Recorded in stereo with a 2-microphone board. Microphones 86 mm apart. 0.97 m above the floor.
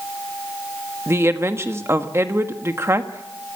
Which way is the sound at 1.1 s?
30° right (ahead or behind).